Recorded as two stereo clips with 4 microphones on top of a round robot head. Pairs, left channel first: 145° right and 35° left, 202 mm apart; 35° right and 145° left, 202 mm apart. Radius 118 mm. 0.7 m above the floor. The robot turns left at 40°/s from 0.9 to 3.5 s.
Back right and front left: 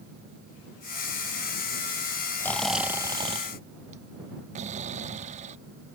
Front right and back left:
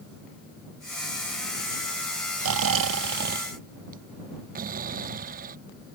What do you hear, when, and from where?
2.4 s snoring: 140° left; by 5.6 s 95° left